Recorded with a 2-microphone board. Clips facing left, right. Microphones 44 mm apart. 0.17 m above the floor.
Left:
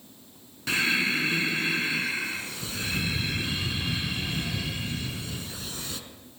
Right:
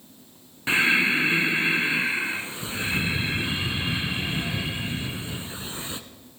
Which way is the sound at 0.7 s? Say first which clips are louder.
Right 5 dB; 25° right (ahead or behind).